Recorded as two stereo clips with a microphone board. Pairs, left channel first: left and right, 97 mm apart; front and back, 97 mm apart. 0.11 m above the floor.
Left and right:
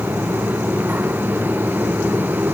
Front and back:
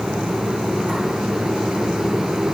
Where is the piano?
I don't hear a piano.